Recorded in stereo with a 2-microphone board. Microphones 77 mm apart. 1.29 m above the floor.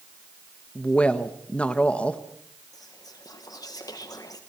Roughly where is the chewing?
I don't hear chewing.